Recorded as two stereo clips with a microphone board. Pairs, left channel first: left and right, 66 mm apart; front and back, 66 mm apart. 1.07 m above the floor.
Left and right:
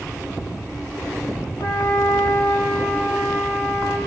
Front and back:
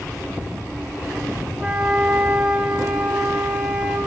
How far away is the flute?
About 5 m.